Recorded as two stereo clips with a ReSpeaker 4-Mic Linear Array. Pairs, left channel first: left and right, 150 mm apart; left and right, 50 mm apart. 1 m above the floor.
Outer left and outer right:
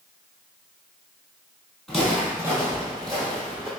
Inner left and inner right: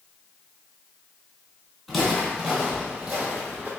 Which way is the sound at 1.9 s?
Centre (ahead or behind).